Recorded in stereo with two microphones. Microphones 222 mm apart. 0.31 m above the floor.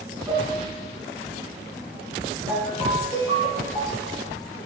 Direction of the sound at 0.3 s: 20° right (ahead or behind).